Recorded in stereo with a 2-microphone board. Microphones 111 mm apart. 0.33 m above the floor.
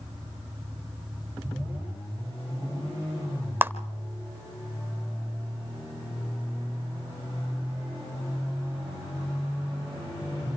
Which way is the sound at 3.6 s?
20° right (ahead or behind).